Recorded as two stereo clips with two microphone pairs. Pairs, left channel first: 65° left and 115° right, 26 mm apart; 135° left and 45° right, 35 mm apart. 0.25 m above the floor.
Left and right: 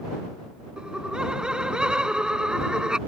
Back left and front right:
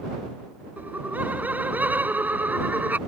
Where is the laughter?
60° right.